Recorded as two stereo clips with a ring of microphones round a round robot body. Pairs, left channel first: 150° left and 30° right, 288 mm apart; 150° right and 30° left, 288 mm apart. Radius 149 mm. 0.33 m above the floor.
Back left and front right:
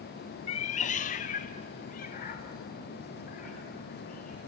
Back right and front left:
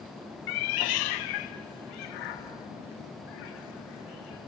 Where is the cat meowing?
140° right, 0.5 m; by 4.4 s 145° right, 4 m.